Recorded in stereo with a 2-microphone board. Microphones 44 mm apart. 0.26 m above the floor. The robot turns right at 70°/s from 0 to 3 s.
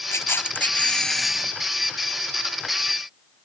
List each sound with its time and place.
0.1 s a camera shutter: 100° left; by 1.5 s 160° right